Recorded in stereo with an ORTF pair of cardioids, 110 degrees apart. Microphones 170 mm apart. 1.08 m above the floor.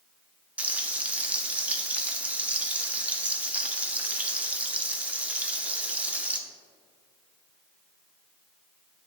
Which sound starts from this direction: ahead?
Frying, at 0.6 s.